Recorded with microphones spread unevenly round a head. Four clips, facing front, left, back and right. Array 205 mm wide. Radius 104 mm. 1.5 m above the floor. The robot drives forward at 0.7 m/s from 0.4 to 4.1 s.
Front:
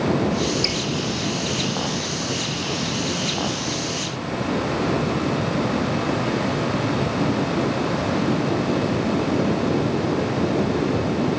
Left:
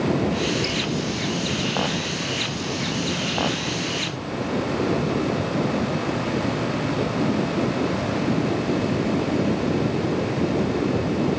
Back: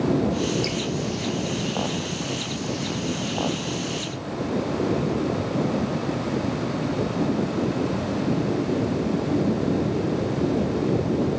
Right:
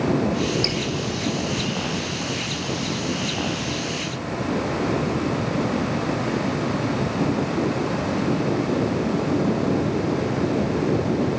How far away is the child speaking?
No child speaking in this recording.